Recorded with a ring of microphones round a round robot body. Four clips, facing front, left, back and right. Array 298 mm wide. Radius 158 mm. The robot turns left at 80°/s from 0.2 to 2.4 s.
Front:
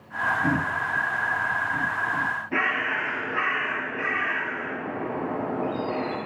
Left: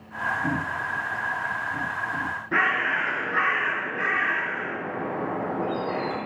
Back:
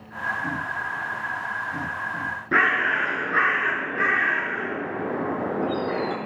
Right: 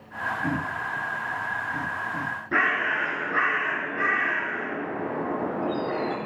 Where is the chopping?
No chopping in this recording.